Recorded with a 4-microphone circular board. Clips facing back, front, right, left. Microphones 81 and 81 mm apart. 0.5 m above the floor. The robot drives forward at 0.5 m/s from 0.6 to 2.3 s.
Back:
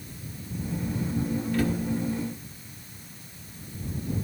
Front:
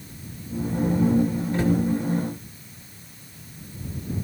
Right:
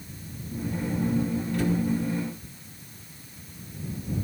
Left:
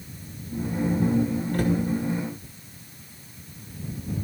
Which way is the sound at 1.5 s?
60° left.